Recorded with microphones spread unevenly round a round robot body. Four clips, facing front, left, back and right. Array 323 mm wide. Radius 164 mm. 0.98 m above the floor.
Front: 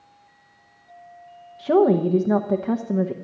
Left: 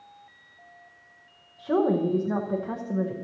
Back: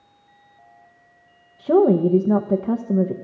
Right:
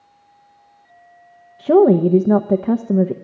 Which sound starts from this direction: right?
A woman speaking, at 1.6 s.